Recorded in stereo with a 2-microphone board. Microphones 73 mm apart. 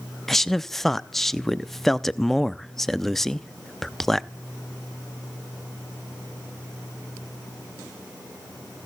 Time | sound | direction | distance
0.3 | a man speaking | 5° left (ahead or behind) | 0.5 m